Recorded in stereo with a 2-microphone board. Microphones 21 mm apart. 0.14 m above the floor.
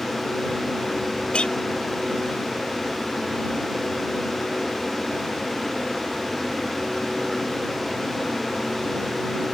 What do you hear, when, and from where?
1.3 s a clink: 50° left (ahead or behind)